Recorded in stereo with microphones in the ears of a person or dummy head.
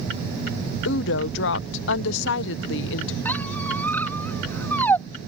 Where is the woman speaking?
70° left (ahead or behind).